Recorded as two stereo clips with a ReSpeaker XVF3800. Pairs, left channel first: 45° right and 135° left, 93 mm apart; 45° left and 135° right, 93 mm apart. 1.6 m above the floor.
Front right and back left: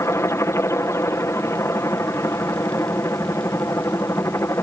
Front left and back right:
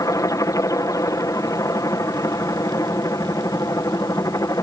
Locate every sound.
0.0 s a helicopter: 5° left